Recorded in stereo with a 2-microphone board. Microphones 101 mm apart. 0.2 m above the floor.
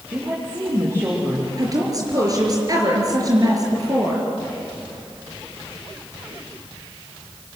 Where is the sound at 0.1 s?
25° right (ahead or behind), 6.5 m.